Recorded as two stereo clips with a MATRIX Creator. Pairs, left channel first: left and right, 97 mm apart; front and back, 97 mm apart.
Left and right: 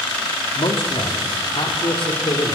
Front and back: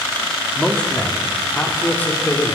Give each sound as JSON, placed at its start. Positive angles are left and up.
{"t": 0.6, "sound": "a man speaking", "azimuth_deg": 80, "distance_m": 2.5}